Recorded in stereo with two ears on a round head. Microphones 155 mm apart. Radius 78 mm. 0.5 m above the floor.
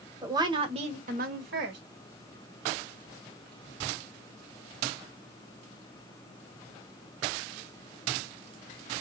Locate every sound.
0.2 s a woman speaking: 20° right (ahead or behind), 1.7 m; by 1.8 s 70° right (ahead or behind), 1.7 m